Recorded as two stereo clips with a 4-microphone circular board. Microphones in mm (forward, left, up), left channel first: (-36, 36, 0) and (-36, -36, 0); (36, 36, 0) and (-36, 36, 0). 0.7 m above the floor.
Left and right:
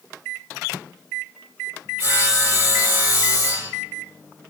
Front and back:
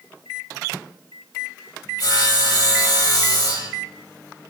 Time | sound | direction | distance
2.0 | sawing | 30° right | 6.5 m